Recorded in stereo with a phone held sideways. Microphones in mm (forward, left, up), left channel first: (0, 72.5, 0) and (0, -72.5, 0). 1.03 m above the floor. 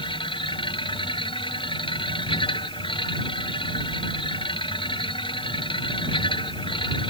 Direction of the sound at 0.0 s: 35° left (ahead or behind).